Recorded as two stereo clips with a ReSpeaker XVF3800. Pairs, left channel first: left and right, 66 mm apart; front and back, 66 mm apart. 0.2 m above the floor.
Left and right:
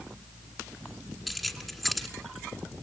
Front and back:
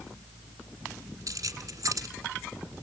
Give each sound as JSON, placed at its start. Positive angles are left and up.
{"t": 1.3, "sound": "keys jangling", "azimuth_deg": 180, "distance_m": 1.6}